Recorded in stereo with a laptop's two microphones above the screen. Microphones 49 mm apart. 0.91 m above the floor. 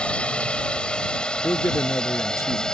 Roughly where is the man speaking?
Left.